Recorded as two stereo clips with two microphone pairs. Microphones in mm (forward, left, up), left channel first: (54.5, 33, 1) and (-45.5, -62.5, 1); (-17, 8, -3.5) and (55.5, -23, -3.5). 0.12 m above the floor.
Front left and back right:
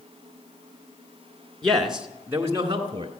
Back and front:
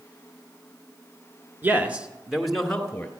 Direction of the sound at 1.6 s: 35° right.